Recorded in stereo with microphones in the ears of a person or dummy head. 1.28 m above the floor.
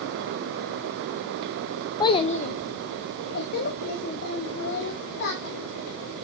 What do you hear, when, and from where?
2.0 s a child speaking: 20° left (ahead or behind), 0.5 m; by 6.2 s 60° left (ahead or behind), 3.5 m